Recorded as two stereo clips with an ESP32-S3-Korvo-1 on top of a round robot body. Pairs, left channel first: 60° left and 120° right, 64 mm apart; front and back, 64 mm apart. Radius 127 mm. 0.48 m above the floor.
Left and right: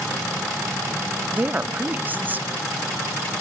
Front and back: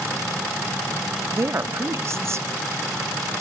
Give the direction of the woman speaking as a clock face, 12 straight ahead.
6 o'clock.